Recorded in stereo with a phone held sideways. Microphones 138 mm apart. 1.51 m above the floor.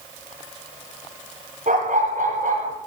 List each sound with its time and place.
1.7 s a dog barking: 75° right (ahead or behind), 9.5 m; by 2.8 s 80° right, 10 m